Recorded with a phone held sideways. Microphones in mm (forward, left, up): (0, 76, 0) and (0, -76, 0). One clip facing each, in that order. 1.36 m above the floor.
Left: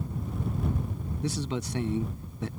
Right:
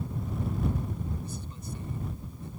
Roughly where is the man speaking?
Left.